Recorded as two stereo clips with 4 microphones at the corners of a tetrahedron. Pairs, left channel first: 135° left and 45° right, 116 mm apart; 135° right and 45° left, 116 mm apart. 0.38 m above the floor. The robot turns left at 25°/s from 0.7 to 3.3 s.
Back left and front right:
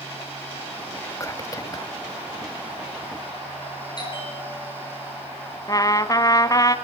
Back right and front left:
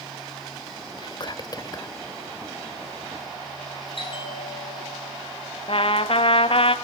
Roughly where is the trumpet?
Behind.